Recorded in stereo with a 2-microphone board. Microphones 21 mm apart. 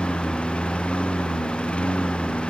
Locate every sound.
0.0 s a lawn mower: 85° left